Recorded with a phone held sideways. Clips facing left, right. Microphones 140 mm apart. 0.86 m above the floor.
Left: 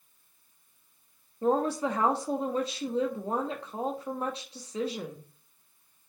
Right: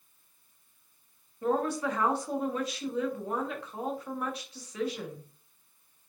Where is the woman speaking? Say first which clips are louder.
Left 2 dB; 30° left (ahead or behind), 1.3 m.